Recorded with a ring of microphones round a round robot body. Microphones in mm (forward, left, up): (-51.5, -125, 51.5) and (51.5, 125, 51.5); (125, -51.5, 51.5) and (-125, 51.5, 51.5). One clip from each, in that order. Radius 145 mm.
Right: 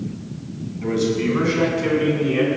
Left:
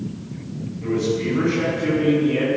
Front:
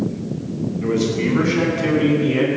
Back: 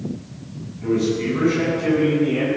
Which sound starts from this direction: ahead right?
A man speaking, at 0.8 s.